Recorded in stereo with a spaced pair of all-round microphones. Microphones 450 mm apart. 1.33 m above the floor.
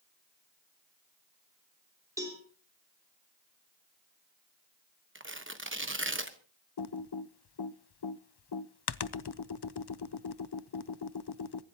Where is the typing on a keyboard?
60° left (ahead or behind), 0.5 m.